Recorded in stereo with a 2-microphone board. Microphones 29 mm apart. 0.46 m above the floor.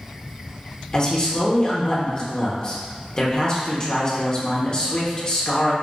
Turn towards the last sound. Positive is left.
turn(degrees=35)  # may be behind; listen again after turning